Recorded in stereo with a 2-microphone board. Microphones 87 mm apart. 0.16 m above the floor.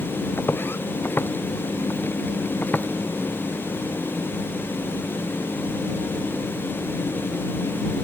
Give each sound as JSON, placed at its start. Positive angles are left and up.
{"t": 0.4, "sound": "footsteps", "side_deg": 25}